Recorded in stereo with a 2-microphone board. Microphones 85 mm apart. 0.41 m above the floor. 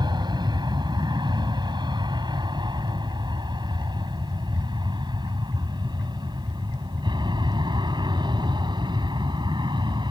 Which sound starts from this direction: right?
An aircraft, at 0.0 s.